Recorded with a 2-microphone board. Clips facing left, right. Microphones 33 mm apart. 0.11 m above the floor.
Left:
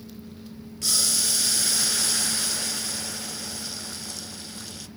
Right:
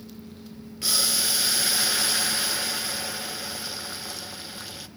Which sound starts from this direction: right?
Boiling, at 0.8 s.